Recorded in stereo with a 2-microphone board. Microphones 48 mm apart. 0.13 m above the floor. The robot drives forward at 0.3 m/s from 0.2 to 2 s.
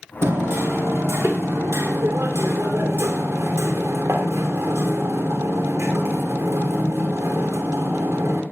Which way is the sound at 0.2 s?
70° right (ahead or behind).